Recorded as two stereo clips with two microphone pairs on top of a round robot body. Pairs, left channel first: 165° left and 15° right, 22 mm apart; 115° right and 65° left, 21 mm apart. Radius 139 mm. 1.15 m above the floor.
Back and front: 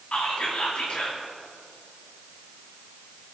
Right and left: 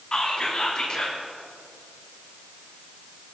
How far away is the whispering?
About 3 m.